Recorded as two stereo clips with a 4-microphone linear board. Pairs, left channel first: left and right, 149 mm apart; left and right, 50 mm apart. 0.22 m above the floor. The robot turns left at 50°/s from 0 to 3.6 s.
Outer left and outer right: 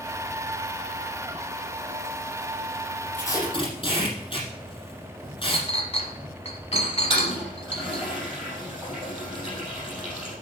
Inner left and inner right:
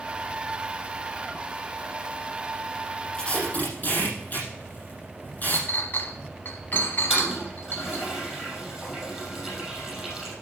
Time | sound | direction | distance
3.1 | tape being pulled | 10° left (ahead or behind) | 5 m
5.5 | a clink | 45° left (ahead or behind) | 1.3 m
7.1 | a toilet flushing | 5° right (ahead or behind) | 4.5 m